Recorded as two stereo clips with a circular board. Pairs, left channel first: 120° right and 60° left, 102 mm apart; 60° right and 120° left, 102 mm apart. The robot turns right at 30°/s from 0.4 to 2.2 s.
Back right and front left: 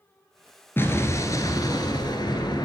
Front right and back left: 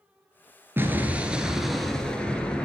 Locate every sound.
0.8 s an explosion: straight behind, 1.5 m; by 2.7 s 135° right, 1.5 m